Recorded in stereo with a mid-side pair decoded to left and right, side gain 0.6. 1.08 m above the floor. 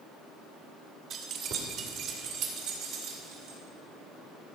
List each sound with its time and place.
1.1 s keys jangling: 50° right, 1.6 m; by 3.6 s 75° right, 3.5 m